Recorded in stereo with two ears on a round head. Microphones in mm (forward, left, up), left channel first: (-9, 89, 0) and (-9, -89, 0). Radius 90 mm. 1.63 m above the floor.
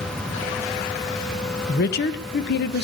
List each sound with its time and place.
1.7 s a woman speaking: 55° left (ahead or behind), 1.2 m